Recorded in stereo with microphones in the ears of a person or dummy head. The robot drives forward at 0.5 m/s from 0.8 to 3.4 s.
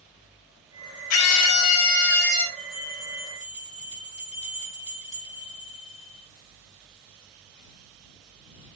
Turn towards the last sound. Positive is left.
turn(degrees=30)  # may be behind; listen again after turning